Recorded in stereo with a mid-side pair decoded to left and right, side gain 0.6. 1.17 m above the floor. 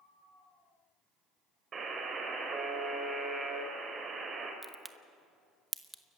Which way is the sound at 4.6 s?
10° right.